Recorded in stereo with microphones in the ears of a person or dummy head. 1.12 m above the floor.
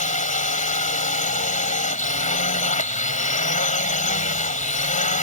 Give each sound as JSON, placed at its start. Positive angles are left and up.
{"t": 0.0, "sound": "a drone", "side_deg": 35}